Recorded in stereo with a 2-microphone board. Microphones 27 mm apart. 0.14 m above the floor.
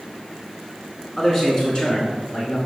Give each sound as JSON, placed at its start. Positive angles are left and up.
{"t": 1.2, "sound": "a man speaking", "side_deg": 15, "distance_m": 1.2}